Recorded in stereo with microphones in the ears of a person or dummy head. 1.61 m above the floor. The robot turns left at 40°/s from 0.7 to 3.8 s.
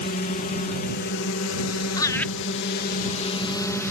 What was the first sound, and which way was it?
A drone, 140° left.